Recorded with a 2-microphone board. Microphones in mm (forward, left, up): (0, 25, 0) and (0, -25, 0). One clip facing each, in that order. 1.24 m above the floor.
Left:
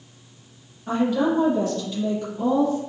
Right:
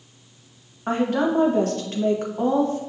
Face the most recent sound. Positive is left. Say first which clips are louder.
# even
turn(degrees=-50)  # may be behind; listen again after turning